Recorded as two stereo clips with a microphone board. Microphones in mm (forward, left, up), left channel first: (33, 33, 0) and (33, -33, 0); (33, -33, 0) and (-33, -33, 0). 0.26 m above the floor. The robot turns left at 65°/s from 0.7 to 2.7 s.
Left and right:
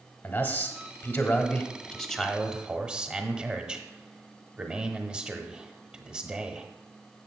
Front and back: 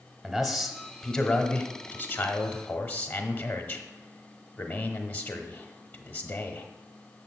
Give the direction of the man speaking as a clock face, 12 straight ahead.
9 o'clock.